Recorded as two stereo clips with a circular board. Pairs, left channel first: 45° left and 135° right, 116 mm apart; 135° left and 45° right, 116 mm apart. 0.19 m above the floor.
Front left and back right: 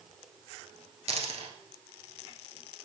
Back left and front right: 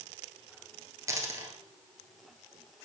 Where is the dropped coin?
110° right, 1.3 m.